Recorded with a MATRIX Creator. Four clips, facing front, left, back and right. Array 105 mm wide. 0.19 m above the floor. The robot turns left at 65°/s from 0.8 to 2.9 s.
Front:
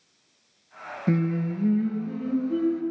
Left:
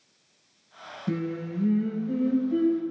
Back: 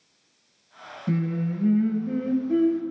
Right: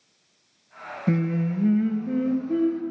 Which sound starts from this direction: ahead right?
Singing, at 1.1 s.